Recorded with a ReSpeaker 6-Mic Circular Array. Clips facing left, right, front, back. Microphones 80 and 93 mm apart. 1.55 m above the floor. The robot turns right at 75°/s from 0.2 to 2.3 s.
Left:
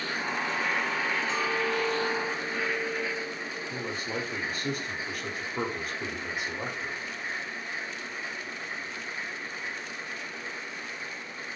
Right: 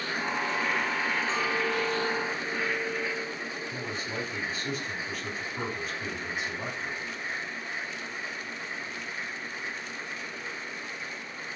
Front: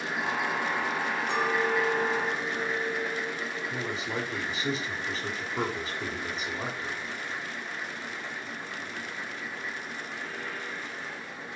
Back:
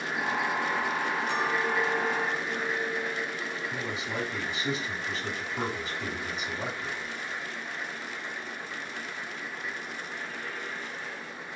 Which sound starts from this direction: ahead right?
A clink, at 1.3 s.